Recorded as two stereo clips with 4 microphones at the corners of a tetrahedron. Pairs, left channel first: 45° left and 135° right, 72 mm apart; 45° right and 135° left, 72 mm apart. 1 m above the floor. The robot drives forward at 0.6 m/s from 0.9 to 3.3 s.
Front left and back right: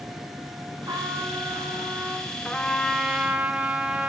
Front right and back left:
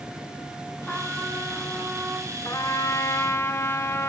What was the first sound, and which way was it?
A trumpet, 120° right.